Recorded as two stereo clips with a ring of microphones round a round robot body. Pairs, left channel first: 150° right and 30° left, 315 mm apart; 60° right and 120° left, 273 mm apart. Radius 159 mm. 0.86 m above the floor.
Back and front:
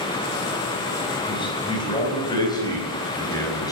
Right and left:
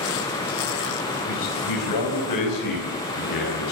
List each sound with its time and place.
1.3 s a man speaking: 75° right, 5 m; by 3.7 s 70° right, 6.5 m